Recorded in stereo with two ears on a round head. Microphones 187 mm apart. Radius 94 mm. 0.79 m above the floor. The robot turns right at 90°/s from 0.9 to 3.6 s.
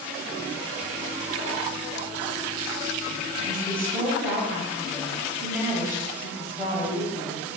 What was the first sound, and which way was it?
A woman speaking, 25° right (ahead or behind).